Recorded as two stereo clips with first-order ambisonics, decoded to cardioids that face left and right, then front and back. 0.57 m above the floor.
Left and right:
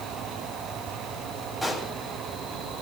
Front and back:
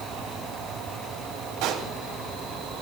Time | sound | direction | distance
1.6 | a pop | straight behind | 3 m